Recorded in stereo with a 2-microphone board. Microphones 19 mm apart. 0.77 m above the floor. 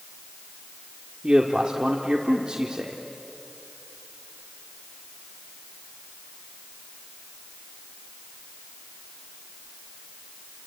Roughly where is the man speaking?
Right.